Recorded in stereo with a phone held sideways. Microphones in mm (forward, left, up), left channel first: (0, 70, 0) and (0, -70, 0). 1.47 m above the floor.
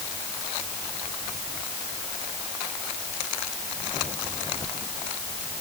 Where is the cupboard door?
I don't hear a cupboard door.